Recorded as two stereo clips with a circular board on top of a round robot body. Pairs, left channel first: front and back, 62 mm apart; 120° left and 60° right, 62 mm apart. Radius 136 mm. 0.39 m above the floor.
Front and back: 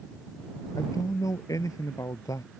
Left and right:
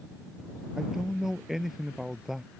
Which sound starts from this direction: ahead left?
A man speaking, at 0.8 s.